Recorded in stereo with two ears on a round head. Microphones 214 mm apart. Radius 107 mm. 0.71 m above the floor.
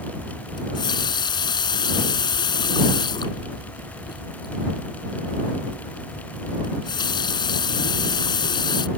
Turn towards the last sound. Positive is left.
turn(degrees=20)  # may be behind; listen again after turning